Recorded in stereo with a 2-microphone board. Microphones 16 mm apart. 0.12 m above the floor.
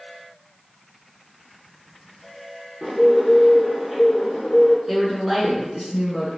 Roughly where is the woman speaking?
Centre.